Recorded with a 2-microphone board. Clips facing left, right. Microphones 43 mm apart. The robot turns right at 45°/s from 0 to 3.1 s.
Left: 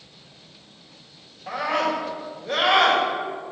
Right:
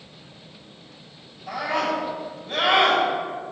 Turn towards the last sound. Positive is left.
turn(degrees=115)